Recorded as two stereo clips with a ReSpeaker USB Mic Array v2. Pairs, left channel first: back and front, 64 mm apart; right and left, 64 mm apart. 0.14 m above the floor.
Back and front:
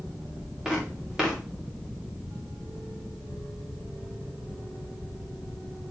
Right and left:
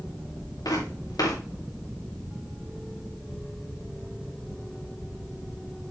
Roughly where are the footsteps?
Right.